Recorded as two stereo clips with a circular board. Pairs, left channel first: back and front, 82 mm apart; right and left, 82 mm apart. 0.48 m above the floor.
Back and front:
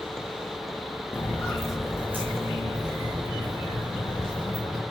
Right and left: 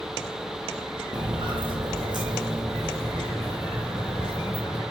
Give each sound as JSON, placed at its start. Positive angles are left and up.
{"t": 1.1, "sound": "footsteps", "azimuth_deg": 115, "distance_m": 1.7}